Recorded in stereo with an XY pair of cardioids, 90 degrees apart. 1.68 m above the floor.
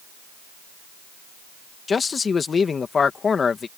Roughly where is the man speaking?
Ahead left.